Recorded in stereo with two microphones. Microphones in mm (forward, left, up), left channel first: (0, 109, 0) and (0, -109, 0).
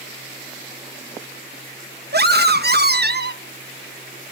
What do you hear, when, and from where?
2.1 s a scream: 55° right (ahead or behind), 0.7 m